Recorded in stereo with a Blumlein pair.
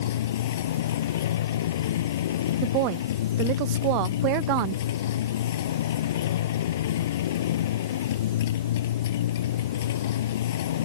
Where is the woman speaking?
40° right.